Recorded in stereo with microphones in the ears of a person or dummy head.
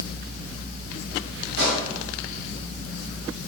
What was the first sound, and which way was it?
A pop, 65° right (ahead or behind).